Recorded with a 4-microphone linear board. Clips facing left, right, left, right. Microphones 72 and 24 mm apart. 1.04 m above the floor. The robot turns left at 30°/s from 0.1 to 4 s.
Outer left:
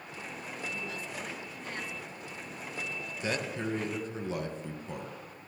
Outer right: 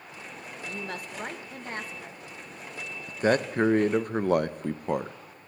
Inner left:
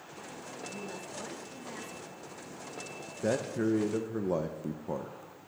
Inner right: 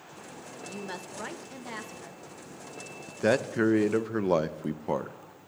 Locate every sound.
0.6 s a woman speaking: 100° right, 1.1 m; by 2.2 s 145° right, 1.1 m
3.1 s a man speaking: 45° right (ahead or behind), 0.6 m; by 5.2 s 55° right (ahead or behind), 0.6 m